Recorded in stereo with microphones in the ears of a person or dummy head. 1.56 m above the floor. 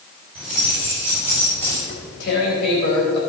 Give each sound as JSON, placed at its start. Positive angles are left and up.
{"t": 0.3, "sound": "keys jangling", "side_deg": 5, "distance_m": 6.5}
{"t": 1.9, "sound": "tearing paper", "side_deg": 65, "distance_m": 3.5}